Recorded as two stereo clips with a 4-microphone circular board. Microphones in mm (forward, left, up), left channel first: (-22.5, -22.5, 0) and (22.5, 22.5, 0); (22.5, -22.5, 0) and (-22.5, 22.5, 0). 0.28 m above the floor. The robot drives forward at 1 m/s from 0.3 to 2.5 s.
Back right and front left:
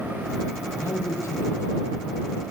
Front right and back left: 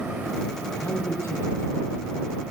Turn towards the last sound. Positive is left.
turn(degrees=-105)